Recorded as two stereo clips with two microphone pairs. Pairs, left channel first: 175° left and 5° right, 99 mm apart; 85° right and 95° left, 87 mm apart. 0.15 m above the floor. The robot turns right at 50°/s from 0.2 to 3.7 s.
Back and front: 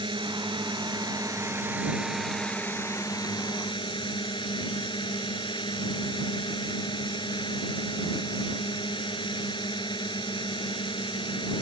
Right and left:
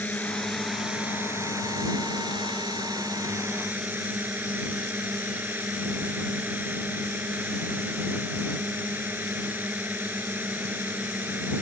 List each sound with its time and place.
0.0 s a drone: 15° right; by 11.6 s 160° left